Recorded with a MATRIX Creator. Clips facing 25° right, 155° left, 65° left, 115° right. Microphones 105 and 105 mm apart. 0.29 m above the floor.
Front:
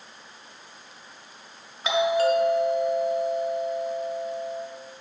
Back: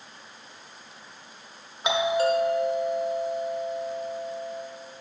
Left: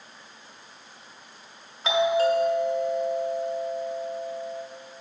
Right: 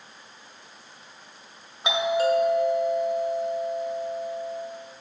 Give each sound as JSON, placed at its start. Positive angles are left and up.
{"t": 1.8, "sound": "a doorbell", "azimuth_deg": -160, "distance_m": 1.5}